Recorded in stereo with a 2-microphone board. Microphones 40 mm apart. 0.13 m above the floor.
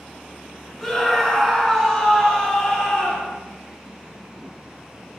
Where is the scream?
5° left (ahead or behind), 1.2 m; by 3.3 s 10° left (ahead or behind), 1.9 m.